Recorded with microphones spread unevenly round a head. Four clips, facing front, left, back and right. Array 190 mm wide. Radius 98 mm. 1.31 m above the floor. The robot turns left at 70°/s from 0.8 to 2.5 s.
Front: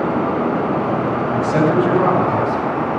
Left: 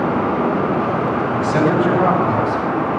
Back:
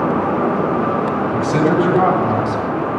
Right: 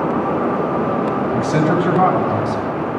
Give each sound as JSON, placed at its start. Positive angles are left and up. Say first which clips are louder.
{"t": 1.3, "sound": "a man speaking", "louder": "left 1 dB, even", "azimuth_deg": -40, "distance_m": 8.0}